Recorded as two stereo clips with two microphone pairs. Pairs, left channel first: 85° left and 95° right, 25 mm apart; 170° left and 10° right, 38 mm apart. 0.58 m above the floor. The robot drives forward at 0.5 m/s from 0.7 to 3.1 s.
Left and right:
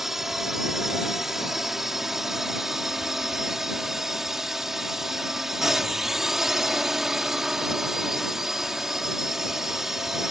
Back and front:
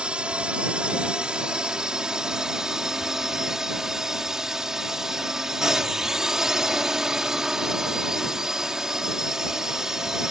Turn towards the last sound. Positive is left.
turn(degrees=-55)